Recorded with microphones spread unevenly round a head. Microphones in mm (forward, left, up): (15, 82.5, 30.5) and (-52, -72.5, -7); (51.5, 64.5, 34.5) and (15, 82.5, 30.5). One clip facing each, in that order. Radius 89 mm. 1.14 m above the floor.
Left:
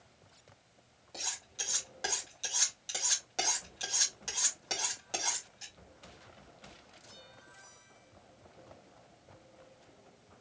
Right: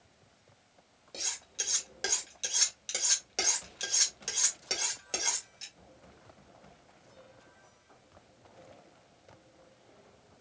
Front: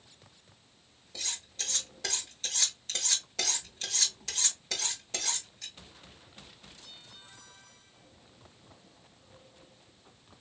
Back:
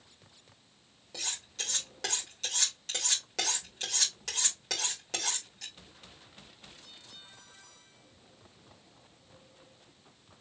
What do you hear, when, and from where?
1.1 s cutlery clinking: 175° right, 3 m